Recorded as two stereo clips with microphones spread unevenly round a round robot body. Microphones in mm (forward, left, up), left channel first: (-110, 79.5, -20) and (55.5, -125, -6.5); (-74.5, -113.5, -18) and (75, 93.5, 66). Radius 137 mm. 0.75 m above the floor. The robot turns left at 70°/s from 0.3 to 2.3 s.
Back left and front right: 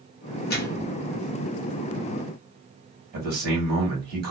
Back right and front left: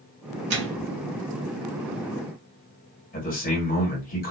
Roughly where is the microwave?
Left.